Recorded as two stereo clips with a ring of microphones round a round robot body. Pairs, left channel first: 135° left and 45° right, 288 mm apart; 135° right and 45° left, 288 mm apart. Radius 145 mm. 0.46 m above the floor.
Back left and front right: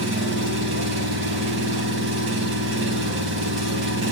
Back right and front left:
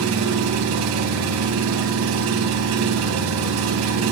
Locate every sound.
0.0 s an engine running: 5° left, 3.5 m